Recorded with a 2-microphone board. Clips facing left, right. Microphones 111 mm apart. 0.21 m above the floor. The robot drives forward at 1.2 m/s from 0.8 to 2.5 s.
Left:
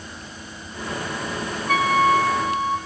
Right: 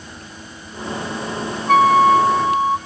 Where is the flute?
50° right (ahead or behind), 0.9 m; by 2.8 s 30° right (ahead or behind), 1.3 m.